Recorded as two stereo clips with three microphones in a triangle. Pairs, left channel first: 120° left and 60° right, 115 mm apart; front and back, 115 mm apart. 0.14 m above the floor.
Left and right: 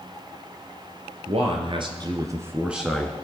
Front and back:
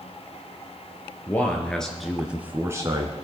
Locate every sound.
1.3 s a man speaking: 75° right, 2.5 m; by 3.2 s 175° right, 1.7 m